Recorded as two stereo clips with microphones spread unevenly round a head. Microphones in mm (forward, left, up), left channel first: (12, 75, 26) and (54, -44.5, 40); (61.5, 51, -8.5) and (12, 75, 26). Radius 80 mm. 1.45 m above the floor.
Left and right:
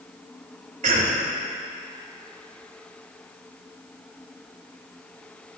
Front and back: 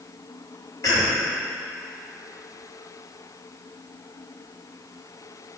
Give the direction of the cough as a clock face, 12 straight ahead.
2 o'clock.